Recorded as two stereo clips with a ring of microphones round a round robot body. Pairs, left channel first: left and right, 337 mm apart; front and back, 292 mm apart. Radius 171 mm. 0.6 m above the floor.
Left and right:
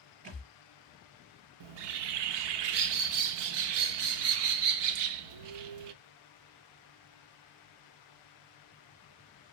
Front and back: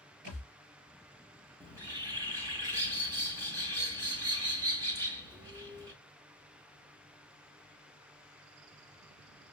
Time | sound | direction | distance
0.2 | a thud | 135° right | 4.5 m
1.6 | a bird | 100° right | 0.7 m